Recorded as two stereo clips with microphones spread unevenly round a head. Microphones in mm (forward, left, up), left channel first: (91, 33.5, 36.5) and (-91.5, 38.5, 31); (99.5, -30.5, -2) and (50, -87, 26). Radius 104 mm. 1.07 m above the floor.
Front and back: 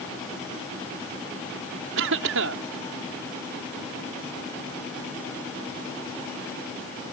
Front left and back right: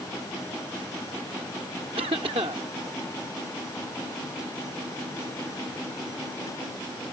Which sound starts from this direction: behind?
A cough, at 2.0 s.